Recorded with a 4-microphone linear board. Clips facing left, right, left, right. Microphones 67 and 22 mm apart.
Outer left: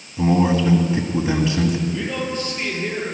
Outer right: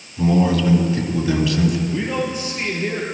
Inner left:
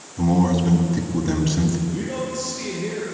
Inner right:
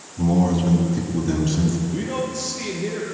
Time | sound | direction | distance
0.2 | a man speaking | 30° left (ahead or behind) | 1.9 m
1.9 | a man speaking | 10° right (ahead or behind) | 4.5 m